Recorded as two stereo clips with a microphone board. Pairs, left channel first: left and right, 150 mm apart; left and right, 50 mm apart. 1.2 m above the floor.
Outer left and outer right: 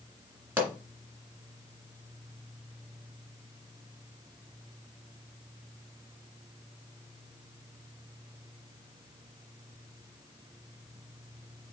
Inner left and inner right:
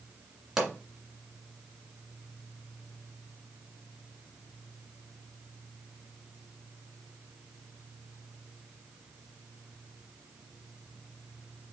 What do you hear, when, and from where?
0.6 s a pop: 10° right (ahead or behind), 2 m